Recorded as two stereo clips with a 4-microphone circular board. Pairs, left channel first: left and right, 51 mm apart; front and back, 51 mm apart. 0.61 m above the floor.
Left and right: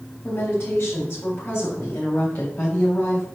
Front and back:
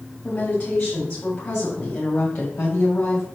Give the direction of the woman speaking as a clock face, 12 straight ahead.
10 o'clock.